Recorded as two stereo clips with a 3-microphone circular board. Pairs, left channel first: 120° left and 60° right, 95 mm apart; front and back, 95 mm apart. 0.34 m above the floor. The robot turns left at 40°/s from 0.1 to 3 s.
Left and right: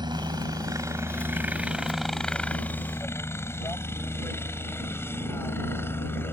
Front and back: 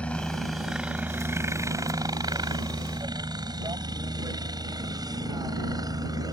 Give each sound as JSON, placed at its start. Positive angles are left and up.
{"t": 0.0, "sound": "a helicopter", "azimuth_deg": -75}